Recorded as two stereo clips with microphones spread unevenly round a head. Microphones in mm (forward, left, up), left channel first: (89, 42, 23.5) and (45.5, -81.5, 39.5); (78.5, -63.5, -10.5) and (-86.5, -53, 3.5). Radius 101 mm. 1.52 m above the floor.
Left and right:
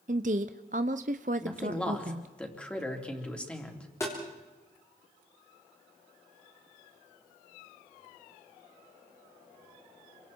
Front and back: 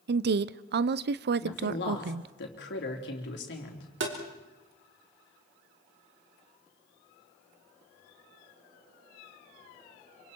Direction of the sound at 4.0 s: 150° left.